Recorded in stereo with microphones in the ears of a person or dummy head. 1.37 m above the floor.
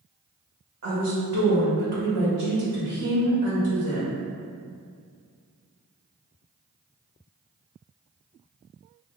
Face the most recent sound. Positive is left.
turn(degrees=-60)  # may be behind; listen again after turning